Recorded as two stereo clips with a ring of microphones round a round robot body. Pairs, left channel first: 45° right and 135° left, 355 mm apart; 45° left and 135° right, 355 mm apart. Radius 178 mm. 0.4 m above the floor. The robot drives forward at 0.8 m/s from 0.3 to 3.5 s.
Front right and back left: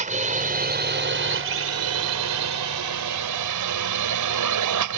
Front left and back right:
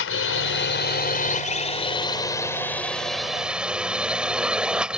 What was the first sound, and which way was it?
A drone, 75° left.